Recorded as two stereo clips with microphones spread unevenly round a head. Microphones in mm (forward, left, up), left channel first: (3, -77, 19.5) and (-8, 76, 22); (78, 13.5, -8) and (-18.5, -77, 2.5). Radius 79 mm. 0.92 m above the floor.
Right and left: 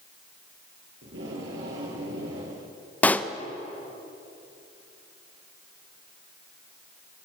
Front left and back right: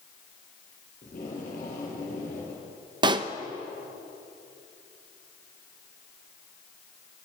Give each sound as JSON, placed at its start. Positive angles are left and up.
{"t": 1.0, "sound": "tape being pulled", "azimuth_deg": 85, "distance_m": 9.0}
{"t": 3.0, "sound": "a pop", "azimuth_deg": -155, "distance_m": 0.9}